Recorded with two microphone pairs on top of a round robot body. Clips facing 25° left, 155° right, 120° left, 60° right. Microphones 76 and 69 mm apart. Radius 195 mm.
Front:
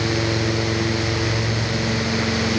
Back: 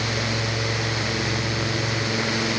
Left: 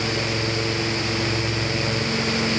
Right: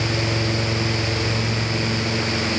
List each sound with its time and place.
Only background noise.